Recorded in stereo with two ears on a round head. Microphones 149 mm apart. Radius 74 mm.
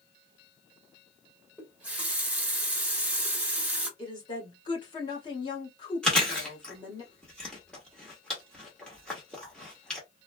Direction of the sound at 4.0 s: 30° left (ahead or behind).